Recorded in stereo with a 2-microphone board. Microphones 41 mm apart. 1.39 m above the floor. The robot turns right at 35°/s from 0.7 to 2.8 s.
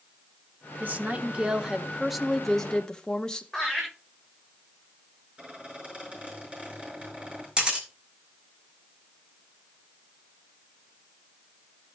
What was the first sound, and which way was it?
A woman speaking, 50° right.